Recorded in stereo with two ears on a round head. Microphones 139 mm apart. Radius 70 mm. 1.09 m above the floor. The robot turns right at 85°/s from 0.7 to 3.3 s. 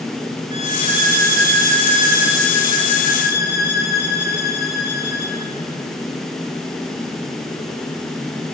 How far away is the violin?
About 3 m.